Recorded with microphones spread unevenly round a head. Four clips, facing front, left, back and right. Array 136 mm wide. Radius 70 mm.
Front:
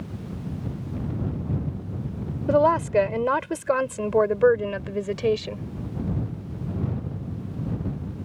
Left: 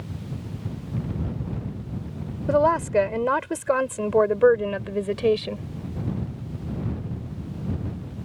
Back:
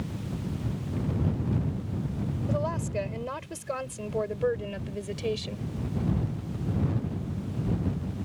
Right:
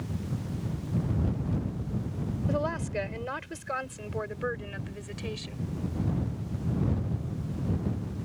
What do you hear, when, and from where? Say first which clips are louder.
2.5 s a woman speaking: left 13 dB, front 14 dB; 40° left; by 5.6 s 65° left